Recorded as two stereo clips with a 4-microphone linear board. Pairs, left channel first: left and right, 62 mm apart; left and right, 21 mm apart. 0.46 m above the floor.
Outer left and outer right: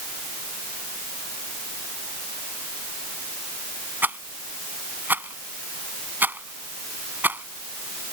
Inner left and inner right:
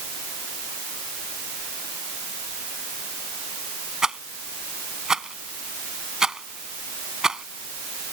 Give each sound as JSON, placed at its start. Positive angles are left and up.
{"t": 4.0, "sound": "a rattle", "side_deg": -30}